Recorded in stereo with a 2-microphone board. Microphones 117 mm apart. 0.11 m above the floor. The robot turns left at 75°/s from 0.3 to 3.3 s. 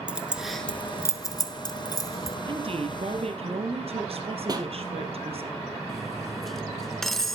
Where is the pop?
35° right (ahead or behind), 1.7 m.